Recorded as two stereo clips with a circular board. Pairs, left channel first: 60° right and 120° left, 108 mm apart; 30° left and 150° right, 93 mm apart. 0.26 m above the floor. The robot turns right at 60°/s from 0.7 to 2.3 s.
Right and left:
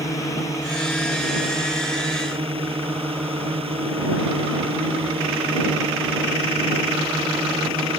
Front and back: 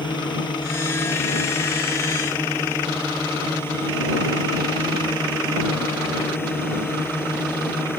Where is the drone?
Straight ahead; by 8.0 s 95° left.